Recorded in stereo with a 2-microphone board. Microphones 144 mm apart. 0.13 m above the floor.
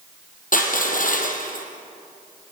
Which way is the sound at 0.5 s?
75° left (ahead or behind).